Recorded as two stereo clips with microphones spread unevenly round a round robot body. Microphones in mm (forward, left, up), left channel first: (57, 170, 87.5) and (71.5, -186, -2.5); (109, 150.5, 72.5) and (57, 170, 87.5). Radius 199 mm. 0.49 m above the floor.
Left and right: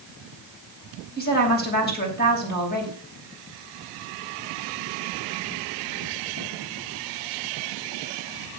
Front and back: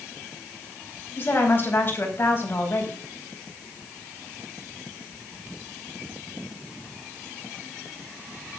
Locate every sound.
1.2 s a woman speaking: 25° left, 4.5 m